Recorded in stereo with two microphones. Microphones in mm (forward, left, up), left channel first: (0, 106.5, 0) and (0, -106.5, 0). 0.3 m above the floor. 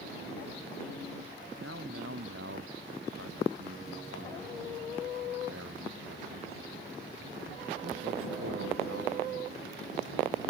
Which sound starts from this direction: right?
A man speaking, at 1.6 s.